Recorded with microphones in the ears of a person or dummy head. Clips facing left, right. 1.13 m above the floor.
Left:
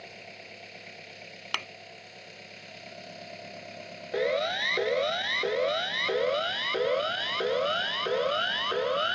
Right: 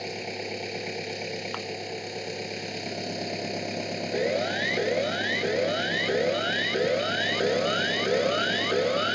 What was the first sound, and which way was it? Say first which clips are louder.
An engine running: right 14 dB; 70° right (ahead or behind).